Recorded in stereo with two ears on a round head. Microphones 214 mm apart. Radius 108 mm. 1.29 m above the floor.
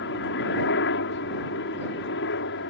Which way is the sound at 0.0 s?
50° left (ahead or behind).